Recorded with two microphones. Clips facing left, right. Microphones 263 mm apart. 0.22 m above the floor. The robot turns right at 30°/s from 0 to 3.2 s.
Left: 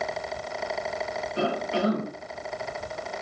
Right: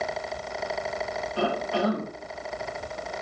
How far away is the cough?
About 1.6 m.